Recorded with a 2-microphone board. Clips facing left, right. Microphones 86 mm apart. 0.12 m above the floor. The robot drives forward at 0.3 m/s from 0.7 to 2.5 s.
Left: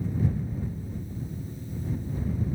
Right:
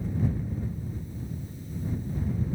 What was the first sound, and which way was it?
Only background noise.